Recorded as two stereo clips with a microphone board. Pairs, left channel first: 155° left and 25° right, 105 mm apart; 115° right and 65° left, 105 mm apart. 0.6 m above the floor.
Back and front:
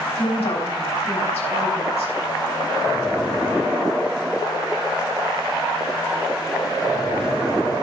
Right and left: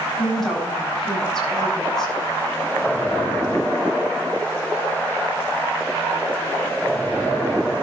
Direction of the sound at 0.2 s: 160° left.